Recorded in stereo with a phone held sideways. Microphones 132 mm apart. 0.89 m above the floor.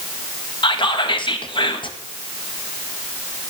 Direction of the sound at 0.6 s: 40° left (ahead or behind).